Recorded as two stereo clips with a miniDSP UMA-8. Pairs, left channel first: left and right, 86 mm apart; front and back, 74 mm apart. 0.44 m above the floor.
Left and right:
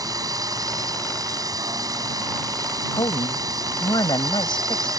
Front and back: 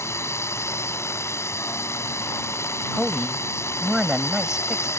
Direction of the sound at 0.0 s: 50° right.